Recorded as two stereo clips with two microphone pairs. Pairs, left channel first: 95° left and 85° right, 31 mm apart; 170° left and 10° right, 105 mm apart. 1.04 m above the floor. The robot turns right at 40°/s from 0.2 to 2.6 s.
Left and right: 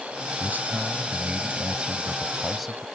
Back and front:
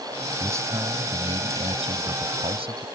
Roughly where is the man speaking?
Right.